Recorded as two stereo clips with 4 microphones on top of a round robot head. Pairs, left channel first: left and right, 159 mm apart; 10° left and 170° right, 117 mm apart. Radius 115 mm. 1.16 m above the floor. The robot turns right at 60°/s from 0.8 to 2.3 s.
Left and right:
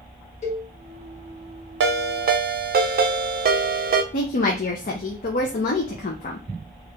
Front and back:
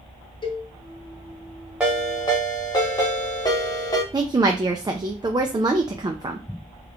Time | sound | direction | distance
0.4 | a cowbell | 55° left | 1.0 m
1.8 | a ringtone | 90° right | 0.5 m
4.1 | a woman speaking | 130° left | 0.5 m